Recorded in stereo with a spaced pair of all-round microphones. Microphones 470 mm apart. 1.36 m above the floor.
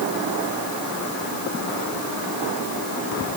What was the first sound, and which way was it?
Only background noise.